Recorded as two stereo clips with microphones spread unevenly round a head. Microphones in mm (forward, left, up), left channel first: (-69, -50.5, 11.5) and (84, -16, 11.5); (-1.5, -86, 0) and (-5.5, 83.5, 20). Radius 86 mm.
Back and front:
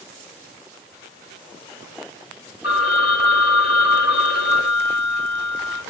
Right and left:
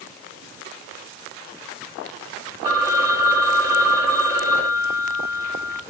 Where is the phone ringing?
160° left, 1.9 m.